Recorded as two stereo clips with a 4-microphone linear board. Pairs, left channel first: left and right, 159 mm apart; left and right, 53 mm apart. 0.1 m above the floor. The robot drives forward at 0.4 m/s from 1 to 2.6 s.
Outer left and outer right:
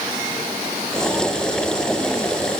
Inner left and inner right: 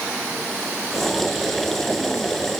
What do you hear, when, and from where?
Only background noise.